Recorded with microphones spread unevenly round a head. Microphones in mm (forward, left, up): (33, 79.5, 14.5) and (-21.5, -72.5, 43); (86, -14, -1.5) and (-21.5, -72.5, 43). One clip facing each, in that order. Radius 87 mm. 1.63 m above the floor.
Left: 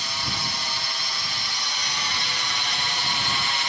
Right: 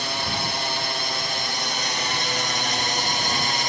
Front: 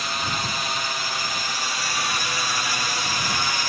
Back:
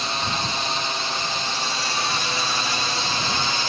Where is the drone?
80° right; by 3.7 s 75° right.